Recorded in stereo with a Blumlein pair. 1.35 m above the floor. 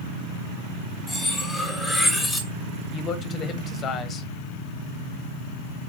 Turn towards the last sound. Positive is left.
turn(degrees=25)